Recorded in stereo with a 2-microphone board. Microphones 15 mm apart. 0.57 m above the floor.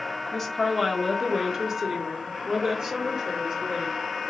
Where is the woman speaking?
10° left (ahead or behind), 1.2 m; by 4.0 s 60° right (ahead or behind), 1.9 m.